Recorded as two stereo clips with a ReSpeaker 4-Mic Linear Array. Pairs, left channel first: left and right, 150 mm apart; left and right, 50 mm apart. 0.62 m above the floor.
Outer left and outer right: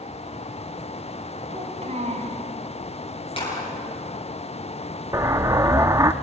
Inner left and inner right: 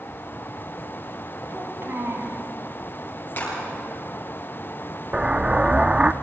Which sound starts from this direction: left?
A clap, at 3.4 s.